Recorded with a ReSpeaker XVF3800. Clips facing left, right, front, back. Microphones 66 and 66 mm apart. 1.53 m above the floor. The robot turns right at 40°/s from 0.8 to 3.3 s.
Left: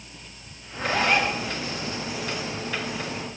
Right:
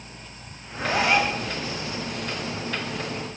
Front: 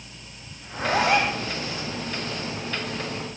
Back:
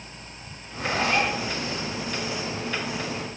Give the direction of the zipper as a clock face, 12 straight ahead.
12 o'clock.